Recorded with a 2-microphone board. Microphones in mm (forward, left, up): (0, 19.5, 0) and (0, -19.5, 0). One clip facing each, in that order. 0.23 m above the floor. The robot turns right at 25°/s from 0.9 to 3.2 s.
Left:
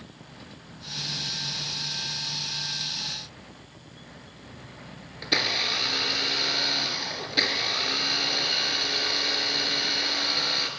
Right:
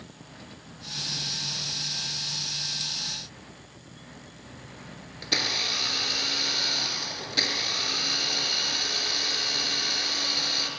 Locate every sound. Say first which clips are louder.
5.2 s a blender: left 2 dB; 15° left (ahead or behind), 3 m